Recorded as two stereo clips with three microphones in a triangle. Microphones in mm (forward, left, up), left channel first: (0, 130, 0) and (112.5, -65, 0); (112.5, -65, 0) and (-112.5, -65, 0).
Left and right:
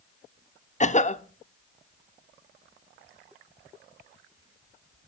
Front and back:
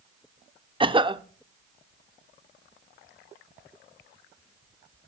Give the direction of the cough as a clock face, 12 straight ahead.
8 o'clock.